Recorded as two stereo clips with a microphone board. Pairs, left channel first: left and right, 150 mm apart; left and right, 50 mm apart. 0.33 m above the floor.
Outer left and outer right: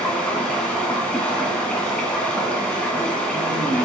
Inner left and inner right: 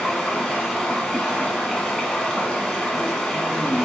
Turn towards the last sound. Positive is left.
turn(degrees=5)  # may be behind; listen again after turning